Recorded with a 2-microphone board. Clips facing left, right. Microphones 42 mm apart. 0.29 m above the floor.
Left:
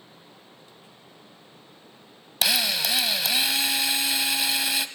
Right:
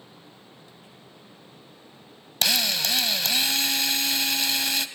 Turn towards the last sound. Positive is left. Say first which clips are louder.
# even
turn(degrees=10)  # may be behind; listen again after turning